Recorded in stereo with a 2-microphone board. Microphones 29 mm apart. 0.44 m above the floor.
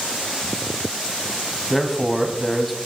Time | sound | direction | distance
1.7 | a man speaking | centre (ahead or behind) | 2.5 m